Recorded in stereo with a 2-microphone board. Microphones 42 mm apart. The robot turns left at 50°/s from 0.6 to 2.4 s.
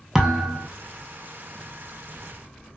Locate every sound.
0.1 s a thud: 5° right (ahead or behind), 0.6 m; by 0.7 s 10° right (ahead or behind), 0.6 m